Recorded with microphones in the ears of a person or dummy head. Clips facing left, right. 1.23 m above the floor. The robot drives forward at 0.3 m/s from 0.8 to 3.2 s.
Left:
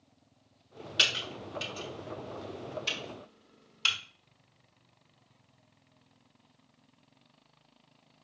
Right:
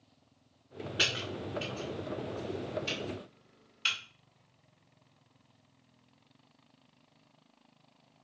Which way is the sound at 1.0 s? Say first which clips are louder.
Right 2 dB; 55° left (ahead or behind).